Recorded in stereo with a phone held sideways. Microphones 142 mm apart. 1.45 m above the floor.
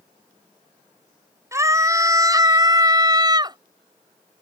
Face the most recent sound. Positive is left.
turn(degrees=-30)  # may be behind; listen again after turning